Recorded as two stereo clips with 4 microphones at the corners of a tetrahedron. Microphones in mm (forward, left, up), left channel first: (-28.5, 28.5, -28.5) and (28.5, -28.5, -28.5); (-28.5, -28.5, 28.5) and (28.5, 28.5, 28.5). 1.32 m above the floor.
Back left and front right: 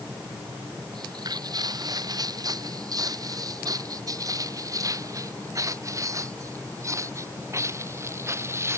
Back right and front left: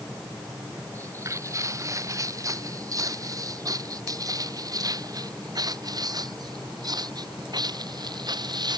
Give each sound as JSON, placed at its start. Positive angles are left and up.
{"t": 0.9, "sound": "footsteps", "azimuth_deg": -5}